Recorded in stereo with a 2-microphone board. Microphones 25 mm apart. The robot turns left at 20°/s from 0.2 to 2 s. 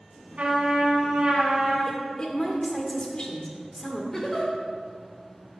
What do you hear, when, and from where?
0.4 s a trumpet: 65° right (ahead or behind), 4.5 m; by 1.8 s 35° right (ahead or behind), 4.5 m
1.9 s a woman speaking: 35° left (ahead or behind), 2.5 m; by 4.0 s 40° left (ahead or behind), 2.5 m
4.1 s a giggle: 20° left (ahead or behind), 2.5 m